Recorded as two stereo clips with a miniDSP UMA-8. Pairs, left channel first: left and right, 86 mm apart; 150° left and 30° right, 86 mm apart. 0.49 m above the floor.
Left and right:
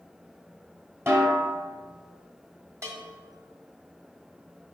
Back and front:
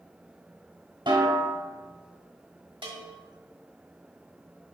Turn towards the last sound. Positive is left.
turn(degrees=-35)